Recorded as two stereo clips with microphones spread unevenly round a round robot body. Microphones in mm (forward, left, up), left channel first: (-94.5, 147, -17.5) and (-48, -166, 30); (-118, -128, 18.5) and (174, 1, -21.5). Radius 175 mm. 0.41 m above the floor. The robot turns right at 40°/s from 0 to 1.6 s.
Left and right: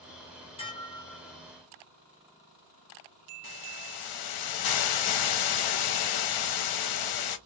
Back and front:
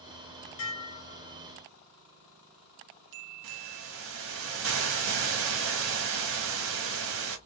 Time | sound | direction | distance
0.6 | dishes clattering | 160° left | 1.0 m
3.4 | a hiss | 75° left | 0.8 m